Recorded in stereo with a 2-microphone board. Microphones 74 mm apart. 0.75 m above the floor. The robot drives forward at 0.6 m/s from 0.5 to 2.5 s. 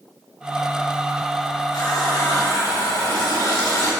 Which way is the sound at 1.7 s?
70° left (ahead or behind).